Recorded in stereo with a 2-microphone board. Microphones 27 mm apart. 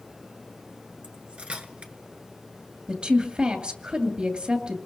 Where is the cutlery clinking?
50° right (ahead or behind), 1.3 m.